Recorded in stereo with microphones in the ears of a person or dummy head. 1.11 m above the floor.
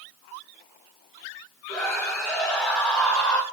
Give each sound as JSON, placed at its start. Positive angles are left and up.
{"t": 1.7, "sound": "a scream", "side_deg": 5, "distance_m": 5.0}